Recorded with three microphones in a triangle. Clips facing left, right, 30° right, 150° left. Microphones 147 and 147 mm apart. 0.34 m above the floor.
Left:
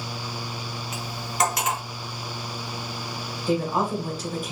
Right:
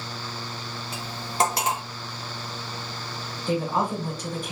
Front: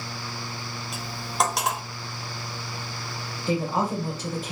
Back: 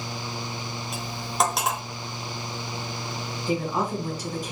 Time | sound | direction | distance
0.9 | cutlery clinking | 120° right | 0.6 m
3.5 | a woman speaking | 10° left | 1.6 m